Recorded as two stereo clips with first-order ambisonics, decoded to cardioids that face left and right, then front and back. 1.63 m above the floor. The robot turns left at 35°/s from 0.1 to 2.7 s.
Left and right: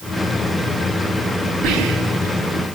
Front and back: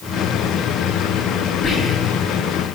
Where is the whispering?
65° right, 3 m; by 2.4 s 90° right, 3 m.